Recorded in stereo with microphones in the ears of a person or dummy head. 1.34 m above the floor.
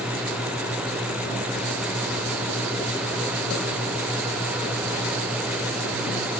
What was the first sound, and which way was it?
Only background noise.